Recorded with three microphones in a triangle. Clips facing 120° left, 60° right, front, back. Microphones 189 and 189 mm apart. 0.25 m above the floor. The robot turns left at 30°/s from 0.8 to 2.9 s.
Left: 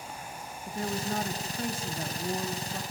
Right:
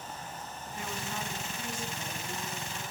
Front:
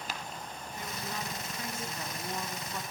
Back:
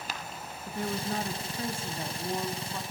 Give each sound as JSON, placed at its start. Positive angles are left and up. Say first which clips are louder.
{"t": 0.7, "sound": "a woman speaking", "louder": "left 8 dB, back 10 dB", "azimuth_deg": 160, "distance_m": 2.5}